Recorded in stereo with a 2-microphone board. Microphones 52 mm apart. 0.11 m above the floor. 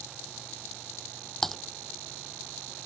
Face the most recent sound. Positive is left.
turn(degrees=5)  # may be behind; listen again after turning